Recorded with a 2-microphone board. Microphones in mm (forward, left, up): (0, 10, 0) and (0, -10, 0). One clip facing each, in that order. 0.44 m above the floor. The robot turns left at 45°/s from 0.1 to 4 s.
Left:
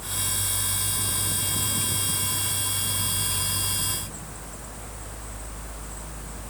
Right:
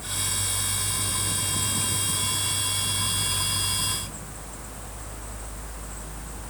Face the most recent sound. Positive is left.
No sound to turn to.